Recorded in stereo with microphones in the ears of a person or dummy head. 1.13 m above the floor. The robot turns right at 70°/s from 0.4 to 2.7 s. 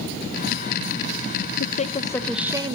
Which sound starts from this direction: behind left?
A woman speaking, at 1.6 s.